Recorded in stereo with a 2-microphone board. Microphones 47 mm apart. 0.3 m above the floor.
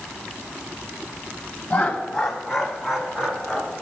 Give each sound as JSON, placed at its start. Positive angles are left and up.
{"t": 1.7, "sound": "laughter", "side_deg": 20, "distance_m": 2.0}